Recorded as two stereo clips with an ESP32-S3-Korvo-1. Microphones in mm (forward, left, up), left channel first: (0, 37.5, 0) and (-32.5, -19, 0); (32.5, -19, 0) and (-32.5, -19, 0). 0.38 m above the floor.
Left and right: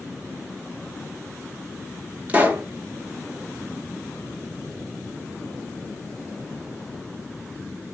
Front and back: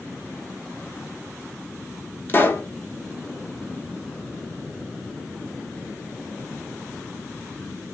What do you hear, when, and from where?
2.3 s a pop: 55° right, 0.9 m